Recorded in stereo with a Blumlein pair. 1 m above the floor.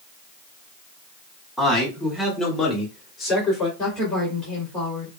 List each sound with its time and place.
1.6 s a man speaking: 10° left, 2 m; by 3.7 s 25° left, 3 m
3.8 s a woman speaking: 15° left, 3 m